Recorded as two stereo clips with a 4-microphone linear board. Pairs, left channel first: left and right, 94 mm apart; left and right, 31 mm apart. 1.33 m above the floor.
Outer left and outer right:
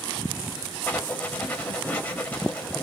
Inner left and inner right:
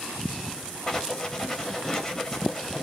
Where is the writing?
20° left (ahead or behind), 1.0 m.